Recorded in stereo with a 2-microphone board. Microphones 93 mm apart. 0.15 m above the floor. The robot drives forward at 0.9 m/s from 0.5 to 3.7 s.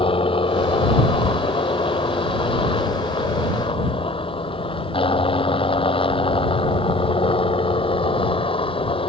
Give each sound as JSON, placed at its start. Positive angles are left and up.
{"t": 0.0, "sound": "a helicopter", "side_deg": 70}